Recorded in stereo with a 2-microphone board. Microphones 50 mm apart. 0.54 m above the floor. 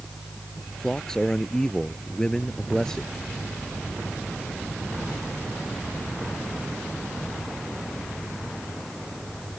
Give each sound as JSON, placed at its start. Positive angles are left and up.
{"t": 0.8, "sound": "a man speaking", "side_deg": 10}